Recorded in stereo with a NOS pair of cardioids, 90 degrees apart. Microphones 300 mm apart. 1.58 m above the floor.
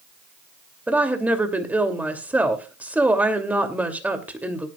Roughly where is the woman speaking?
Ahead.